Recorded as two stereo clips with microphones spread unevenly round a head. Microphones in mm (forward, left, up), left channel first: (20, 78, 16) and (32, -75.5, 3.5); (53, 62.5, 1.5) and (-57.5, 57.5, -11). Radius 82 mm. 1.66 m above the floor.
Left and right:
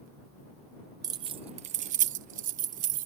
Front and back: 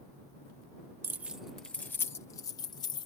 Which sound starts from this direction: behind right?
Keys jangling, at 1.0 s.